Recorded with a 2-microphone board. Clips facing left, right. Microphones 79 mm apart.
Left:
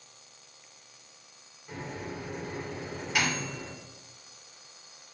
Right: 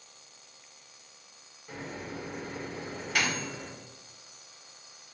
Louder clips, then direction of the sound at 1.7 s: Left 1 dB; 5° left (ahead or behind).